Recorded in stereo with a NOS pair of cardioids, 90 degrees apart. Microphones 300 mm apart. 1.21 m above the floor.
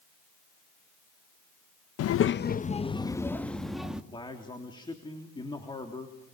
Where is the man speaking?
15° left, 3.5 m.